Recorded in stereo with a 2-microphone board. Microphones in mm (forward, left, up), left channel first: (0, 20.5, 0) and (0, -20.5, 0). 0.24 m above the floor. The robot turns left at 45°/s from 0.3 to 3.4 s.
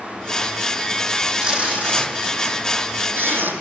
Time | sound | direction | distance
1.4 | tape being pulled | 20° right (ahead or behind) | 8 m